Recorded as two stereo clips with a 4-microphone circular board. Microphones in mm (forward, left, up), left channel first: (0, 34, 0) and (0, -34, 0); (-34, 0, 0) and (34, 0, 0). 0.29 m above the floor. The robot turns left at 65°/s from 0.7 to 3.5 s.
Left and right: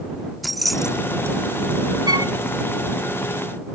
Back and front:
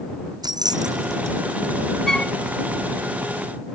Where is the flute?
95° right; by 2.4 s 115° right.